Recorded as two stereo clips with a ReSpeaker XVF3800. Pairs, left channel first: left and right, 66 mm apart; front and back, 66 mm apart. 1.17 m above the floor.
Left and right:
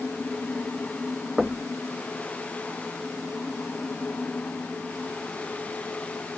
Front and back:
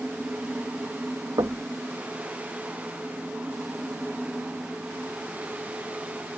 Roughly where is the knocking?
Behind.